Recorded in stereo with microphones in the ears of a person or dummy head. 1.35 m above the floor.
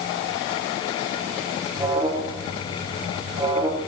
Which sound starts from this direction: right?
An alarm, at 1.7 s.